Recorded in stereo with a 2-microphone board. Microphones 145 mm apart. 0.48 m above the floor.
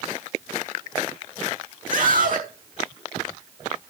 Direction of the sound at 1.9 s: 70° right (ahead or behind).